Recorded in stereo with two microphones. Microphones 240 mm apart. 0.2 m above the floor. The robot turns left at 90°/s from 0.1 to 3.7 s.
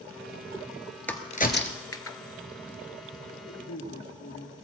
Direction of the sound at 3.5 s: 60° left (ahead or behind).